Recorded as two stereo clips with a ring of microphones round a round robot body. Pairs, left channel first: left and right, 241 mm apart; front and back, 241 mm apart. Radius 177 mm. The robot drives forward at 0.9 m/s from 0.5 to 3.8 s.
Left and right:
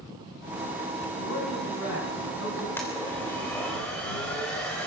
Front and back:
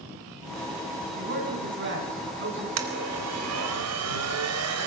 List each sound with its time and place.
1.2 s a man speaking: 140° left, 8 m; by 2.7 s 145° left, 9 m
2.8 s a blender: 175° left, 3 m